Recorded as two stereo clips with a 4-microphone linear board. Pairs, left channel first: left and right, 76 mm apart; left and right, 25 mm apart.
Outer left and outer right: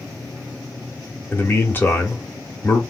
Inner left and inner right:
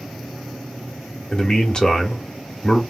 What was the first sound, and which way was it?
A man speaking, 30° left (ahead or behind).